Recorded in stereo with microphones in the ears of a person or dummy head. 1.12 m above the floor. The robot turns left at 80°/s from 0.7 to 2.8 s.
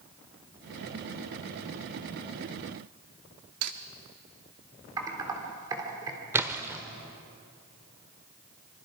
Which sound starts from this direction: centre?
A splash, at 6.3 s.